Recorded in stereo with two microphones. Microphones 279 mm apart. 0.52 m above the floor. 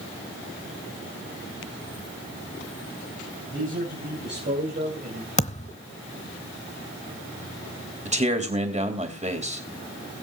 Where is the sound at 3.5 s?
45° right (ahead or behind), 4 m; by 5.3 s 30° right (ahead or behind), 3 m.